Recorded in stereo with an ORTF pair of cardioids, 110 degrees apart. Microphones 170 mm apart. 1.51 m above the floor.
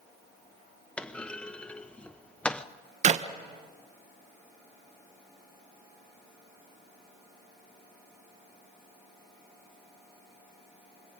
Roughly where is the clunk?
Ahead.